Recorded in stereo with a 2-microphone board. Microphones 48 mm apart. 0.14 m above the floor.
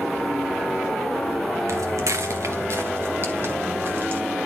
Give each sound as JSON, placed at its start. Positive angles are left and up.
{"t": 1.7, "sound": "footsteps", "side_deg": -75, "distance_m": 0.7}